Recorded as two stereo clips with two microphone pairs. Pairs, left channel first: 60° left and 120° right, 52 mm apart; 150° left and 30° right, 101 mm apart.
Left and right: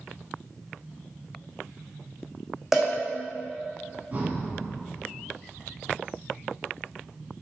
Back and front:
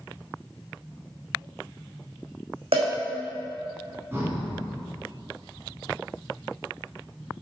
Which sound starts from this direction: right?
Breathing, at 4.1 s.